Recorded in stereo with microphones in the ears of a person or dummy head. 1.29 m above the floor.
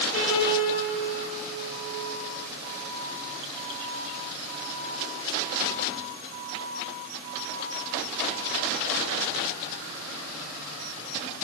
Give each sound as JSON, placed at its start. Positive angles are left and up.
{"t": 0.1, "sound": "a piano", "side_deg": 45, "distance_m": 9.5}